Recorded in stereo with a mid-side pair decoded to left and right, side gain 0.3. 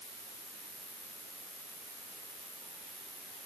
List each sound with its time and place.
0.0 s an insect: 35° right, 2.0 m